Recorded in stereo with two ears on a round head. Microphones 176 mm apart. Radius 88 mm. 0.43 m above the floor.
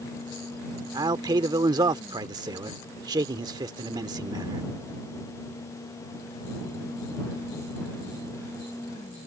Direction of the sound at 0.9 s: 20° right (ahead or behind).